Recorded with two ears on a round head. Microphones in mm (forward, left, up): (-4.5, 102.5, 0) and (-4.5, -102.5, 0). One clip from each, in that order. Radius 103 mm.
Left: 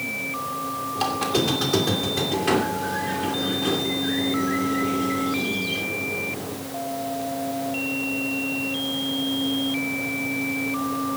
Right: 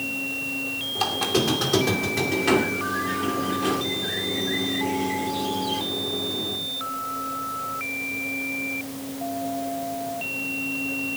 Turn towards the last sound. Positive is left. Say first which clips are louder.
# even
turn(degrees=-5)  # may be behind; listen again after turning